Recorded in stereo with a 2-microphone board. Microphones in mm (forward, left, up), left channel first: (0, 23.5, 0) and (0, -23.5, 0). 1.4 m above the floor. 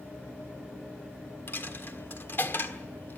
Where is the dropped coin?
50° left (ahead or behind), 1.5 m.